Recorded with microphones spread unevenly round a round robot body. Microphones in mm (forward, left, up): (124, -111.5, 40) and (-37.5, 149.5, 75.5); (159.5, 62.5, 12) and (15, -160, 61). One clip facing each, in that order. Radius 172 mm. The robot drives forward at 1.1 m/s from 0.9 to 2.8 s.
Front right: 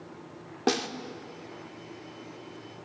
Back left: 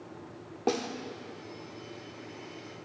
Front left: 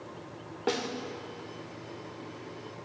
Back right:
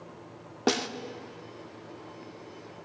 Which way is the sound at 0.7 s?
100° right.